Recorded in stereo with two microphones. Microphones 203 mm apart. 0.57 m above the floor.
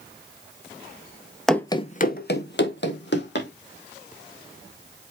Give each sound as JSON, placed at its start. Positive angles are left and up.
{"t": 1.5, "sound": "running footsteps", "side_deg": 0, "distance_m": 0.7}